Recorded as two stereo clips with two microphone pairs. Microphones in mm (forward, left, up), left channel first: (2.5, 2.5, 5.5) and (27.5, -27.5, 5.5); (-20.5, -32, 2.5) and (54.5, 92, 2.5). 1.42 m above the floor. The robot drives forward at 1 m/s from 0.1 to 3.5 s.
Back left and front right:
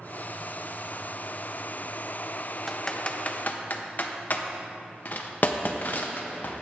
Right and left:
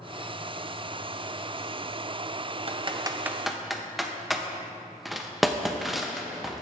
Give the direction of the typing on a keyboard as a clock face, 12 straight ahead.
11 o'clock.